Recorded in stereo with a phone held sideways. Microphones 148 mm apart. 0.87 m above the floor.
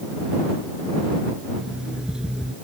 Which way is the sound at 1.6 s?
5° right (ahead or behind).